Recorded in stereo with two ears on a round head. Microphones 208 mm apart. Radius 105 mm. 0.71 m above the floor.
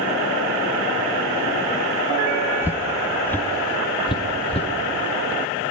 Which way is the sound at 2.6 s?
10° right (ahead or behind).